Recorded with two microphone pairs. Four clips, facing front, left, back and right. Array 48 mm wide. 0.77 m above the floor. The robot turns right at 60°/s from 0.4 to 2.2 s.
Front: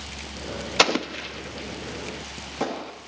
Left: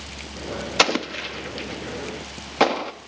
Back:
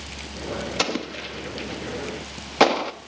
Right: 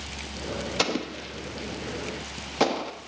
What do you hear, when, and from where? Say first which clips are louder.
0.8 s an explosion: left 9 dB, front 8 dB; 65° left, 0.6 m; by 2.9 s 150° left, 0.6 m